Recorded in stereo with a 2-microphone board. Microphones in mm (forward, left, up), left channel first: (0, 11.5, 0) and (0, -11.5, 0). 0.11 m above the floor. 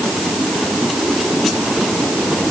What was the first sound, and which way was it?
Only background noise.